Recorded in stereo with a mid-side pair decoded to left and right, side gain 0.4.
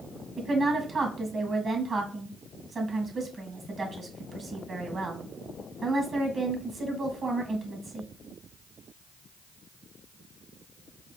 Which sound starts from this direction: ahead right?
A woman speaking, at 0.4 s.